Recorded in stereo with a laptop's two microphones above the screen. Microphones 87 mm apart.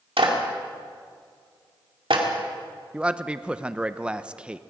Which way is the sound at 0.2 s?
80° right.